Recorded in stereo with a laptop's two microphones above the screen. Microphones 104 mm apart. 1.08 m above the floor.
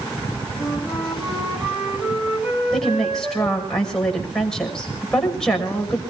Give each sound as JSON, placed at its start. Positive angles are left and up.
{"t": 0.6, "sound": "a flute", "side_deg": -5, "distance_m": 7.0}
{"t": 2.7, "sound": "a woman speaking", "side_deg": 5, "distance_m": 5.5}